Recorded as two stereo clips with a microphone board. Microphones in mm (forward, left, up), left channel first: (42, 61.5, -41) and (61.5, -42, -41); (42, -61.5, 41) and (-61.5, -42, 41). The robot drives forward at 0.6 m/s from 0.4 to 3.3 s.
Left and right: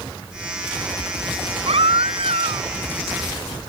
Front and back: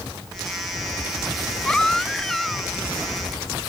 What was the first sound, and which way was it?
A baby crying, 90° right.